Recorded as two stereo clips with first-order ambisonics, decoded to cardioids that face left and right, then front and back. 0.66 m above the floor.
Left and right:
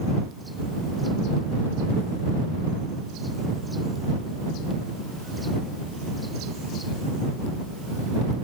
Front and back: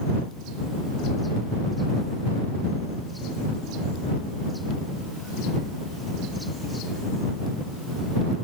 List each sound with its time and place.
Only background noise.